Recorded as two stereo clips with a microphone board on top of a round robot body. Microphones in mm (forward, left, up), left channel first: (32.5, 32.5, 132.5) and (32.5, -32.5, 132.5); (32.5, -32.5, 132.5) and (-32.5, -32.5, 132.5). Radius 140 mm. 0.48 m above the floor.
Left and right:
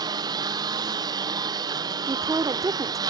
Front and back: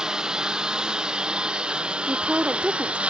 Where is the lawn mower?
100° right; by 3.1 s 105° right.